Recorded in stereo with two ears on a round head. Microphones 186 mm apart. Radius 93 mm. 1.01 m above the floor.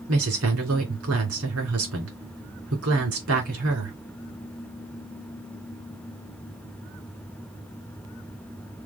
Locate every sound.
0.1 s a woman speaking: 80° right, 3 m